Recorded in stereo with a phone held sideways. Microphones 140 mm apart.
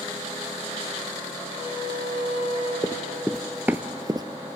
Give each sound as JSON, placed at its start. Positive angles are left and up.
{"t": 1.5, "sound": "a flute", "side_deg": 45, "distance_m": 3.0}
{"t": 2.8, "sound": "running footsteps", "side_deg": 20, "distance_m": 0.9}